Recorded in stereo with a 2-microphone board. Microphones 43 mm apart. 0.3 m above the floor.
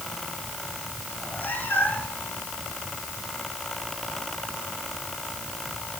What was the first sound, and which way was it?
A cat meowing, 45° left (ahead or behind).